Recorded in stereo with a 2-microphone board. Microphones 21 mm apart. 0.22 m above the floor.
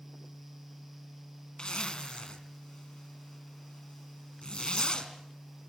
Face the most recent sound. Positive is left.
turn(degrees=50)  # may be behind; listen again after turning